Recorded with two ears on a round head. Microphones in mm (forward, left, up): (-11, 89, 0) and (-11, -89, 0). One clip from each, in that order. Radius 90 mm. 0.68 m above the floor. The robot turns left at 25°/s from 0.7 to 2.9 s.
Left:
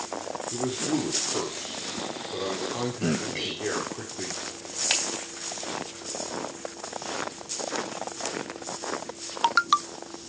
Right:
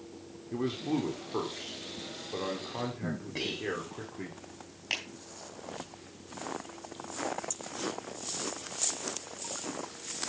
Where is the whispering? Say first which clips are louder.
Left 4 dB; 30° left (ahead or behind), 3.5 m.